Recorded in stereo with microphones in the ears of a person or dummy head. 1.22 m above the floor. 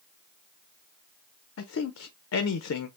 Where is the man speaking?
80° left, 0.5 m.